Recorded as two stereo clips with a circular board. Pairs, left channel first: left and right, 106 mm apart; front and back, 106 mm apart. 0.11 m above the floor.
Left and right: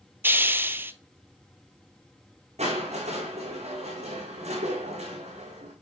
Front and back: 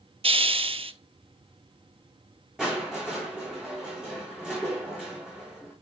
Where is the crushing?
95° right, 4.5 m.